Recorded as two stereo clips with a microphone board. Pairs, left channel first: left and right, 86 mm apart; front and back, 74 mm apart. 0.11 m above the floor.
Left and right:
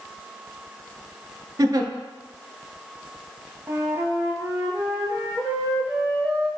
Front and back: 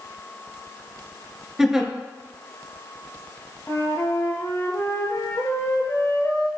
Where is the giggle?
95° right, 0.6 m.